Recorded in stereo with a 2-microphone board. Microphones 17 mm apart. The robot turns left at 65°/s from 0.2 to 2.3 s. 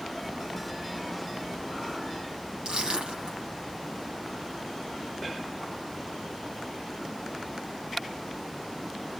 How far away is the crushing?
About 7 m.